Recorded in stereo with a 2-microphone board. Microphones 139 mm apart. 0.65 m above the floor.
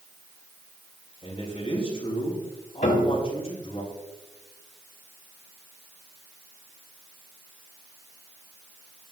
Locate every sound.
1.2 s a man speaking: 45° left (ahead or behind), 6.5 m
2.8 s a piano: 65° left (ahead or behind), 1.7 m